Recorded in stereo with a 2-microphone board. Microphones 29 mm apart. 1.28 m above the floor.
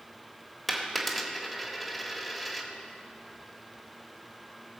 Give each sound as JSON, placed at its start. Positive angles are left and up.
{"t": 0.7, "sound": "a dropped coin", "side_deg": 0, "distance_m": 1.3}